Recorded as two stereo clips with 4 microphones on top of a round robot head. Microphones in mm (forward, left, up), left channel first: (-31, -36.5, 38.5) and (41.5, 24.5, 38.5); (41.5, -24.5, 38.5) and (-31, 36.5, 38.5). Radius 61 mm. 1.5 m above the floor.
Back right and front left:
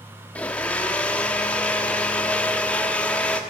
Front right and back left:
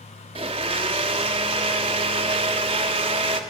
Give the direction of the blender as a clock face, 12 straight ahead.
7 o'clock.